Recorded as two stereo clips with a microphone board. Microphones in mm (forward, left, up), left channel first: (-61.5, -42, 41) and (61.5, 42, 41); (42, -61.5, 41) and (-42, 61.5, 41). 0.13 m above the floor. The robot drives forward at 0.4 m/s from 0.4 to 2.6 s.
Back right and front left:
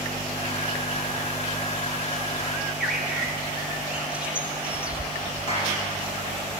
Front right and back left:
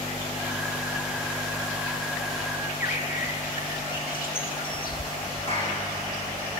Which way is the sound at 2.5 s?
50° right.